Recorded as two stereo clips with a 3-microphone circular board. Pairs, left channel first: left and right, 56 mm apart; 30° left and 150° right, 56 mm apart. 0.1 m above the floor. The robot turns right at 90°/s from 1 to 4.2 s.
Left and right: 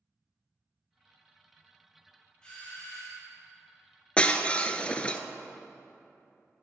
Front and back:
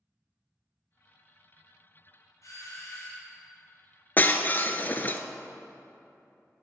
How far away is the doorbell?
About 3 m.